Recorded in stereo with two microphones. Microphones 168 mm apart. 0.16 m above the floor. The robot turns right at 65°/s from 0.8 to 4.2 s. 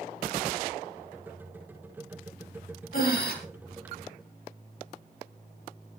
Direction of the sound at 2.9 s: 60° left (ahead or behind).